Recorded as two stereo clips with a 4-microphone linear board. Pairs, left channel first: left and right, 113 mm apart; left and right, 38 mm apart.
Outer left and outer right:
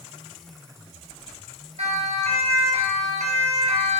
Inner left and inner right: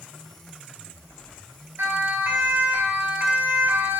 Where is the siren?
70° right (ahead or behind), 5 m; by 4.0 s 75° right (ahead or behind), 4.5 m.